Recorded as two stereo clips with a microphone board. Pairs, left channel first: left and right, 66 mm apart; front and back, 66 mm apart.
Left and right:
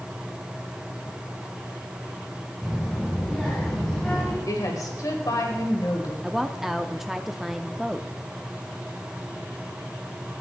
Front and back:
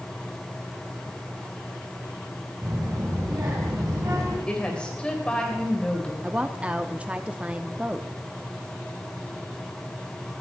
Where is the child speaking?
175° left, 3 m; by 4.4 s 165° left, 4 m.